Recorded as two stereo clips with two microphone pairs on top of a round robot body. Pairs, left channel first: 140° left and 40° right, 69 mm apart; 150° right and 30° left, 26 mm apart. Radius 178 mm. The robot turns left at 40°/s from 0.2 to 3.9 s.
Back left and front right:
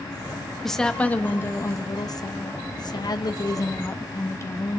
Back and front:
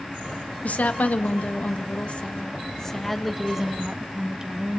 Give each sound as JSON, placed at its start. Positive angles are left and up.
{"t": 0.6, "sound": "a woman speaking", "azimuth_deg": -135, "distance_m": 1.9}